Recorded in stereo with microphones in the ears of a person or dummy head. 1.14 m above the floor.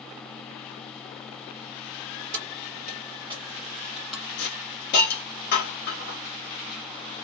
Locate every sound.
2.3 s keys jangling: 60° right (ahead or behind), 0.9 m; by 4.3 s centre (ahead or behind), 1.2 m
4.4 s a hiss: 50° left (ahead or behind), 1.4 m